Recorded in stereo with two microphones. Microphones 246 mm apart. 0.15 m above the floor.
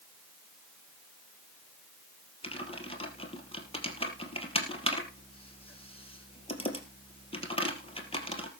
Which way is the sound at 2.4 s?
20° left (ahead or behind).